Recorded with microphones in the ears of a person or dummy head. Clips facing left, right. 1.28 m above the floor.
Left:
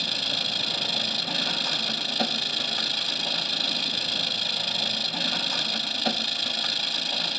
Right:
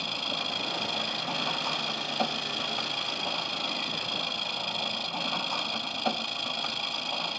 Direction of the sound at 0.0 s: 25° left (ahead or behind).